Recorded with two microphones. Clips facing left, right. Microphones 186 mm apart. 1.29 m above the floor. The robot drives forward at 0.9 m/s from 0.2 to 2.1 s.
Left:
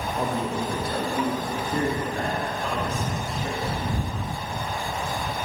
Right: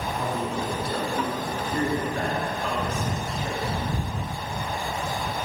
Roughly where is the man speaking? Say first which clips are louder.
Left 2 dB; left.